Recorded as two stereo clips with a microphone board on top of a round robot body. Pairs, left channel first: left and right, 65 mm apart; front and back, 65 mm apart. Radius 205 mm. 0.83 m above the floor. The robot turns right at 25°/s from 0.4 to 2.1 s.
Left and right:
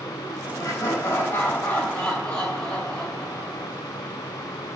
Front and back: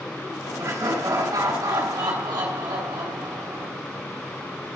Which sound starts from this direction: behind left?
Laughter, at 0.6 s.